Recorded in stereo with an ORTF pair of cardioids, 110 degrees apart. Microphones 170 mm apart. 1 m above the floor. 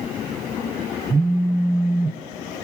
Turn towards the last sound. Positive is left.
turn(degrees=-15)